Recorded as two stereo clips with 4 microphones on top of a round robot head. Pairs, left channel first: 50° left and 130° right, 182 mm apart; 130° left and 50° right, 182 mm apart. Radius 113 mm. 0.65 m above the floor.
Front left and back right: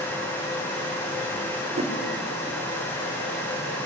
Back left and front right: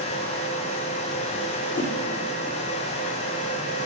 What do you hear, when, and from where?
1.8 s a whoosh: 170° left, 2.5 m